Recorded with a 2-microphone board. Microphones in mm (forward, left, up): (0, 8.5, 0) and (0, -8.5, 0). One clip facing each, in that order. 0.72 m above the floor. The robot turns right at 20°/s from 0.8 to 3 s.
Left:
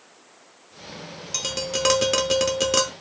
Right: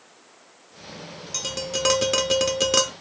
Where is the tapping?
165° left, 0.9 m; by 2.9 s 165° right, 0.9 m.